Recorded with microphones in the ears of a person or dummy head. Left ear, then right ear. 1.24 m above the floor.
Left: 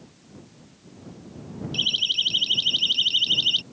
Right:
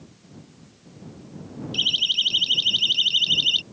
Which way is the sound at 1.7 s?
15° right (ahead or behind).